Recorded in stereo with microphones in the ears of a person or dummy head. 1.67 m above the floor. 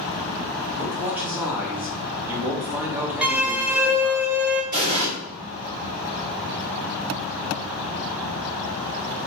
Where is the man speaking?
10° right (ahead or behind), 0.6 m.